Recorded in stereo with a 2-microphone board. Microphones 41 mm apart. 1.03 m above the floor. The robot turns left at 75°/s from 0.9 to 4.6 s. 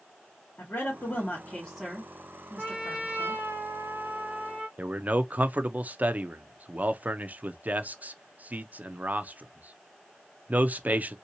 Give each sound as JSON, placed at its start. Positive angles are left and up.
{"t": 0.6, "sound": "a woman speaking", "side_deg": 70, "distance_m": 1.9}
{"t": 2.6, "sound": "a trumpet", "azimuth_deg": -15, "distance_m": 2.5}
{"t": 4.8, "sound": "a man speaking", "side_deg": -40, "distance_m": 0.6}